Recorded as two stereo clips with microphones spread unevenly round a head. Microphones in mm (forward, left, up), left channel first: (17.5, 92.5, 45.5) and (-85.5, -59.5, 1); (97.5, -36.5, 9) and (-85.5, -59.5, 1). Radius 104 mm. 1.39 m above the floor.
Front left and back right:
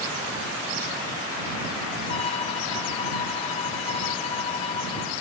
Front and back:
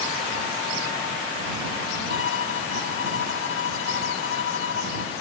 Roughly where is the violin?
Ahead.